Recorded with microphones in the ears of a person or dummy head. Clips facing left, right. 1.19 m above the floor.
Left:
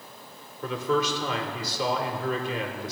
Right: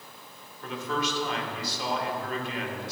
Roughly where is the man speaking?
Left.